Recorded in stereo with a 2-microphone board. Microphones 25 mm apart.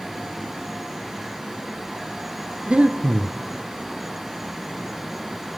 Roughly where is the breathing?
Right.